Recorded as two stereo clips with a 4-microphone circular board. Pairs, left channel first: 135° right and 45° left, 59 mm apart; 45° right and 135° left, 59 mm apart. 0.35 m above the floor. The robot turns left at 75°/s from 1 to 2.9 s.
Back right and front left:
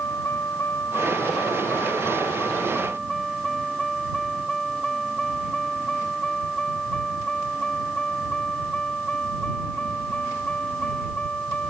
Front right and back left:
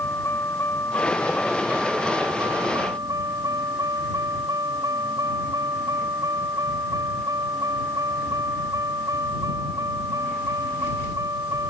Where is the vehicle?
85° right; by 11.7 s 155° left.